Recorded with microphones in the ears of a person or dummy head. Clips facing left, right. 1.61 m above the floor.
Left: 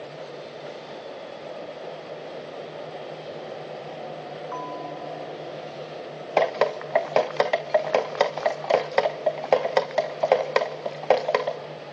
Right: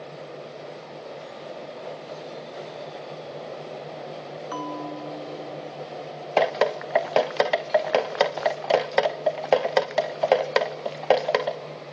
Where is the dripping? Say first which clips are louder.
Even; centre (ahead or behind), 0.6 m.